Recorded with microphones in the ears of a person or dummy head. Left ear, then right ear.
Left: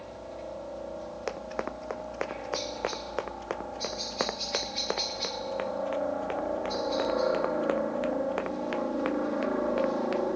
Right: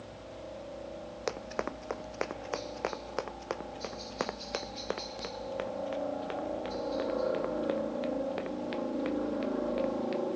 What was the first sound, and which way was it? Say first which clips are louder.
A helicopter: left 5 dB; 55° left (ahead or behind).